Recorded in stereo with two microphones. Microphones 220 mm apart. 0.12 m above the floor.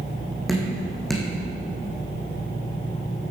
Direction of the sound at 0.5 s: Centre (ahead or behind).